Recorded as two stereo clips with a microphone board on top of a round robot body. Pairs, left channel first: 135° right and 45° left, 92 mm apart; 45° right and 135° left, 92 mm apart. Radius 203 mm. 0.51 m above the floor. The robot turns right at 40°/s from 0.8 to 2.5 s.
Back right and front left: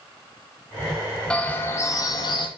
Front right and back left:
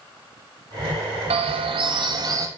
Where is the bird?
145° left, 0.5 m; by 2.5 s 170° right, 0.5 m.